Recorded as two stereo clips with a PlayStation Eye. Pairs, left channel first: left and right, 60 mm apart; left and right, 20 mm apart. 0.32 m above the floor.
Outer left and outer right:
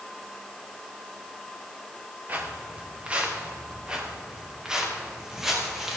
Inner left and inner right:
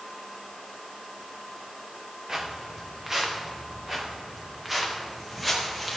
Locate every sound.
2.3 s footsteps: 30° right (ahead or behind), 3 m; by 6.0 s 5° right (ahead or behind), 4.5 m